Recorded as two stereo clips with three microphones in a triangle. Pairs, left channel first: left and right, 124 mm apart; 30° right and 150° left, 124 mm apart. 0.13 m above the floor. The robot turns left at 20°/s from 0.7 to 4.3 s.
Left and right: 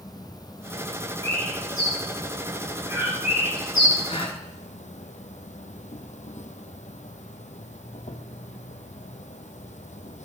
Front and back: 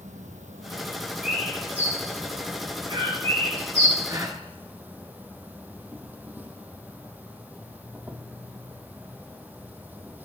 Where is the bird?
125° right, 7.5 m; by 4.0 s straight behind, 7.5 m.